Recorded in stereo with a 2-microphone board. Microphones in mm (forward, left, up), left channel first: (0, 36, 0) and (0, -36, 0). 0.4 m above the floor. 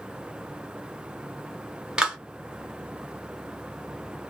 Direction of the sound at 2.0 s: 10° right (ahead or behind).